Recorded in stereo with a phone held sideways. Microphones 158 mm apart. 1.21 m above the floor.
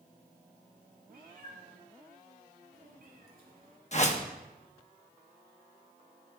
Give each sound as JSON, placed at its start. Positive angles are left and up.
{"t": 1.1, "sound": "a cat meowing", "side_deg": -70, "distance_m": 3.5}
{"t": 3.9, "sound": "a whoosh", "side_deg": 45, "distance_m": 1.1}